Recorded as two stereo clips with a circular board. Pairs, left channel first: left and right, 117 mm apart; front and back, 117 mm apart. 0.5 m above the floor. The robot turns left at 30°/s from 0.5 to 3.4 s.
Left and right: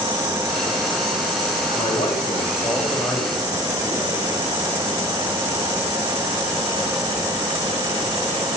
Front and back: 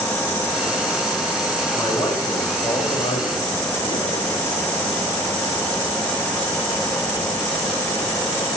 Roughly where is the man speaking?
Ahead left.